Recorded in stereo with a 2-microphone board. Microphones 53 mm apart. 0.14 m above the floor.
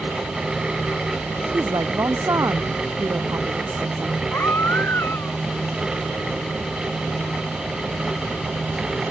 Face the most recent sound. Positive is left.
turn(degrees=50)  # may be behind; listen again after turning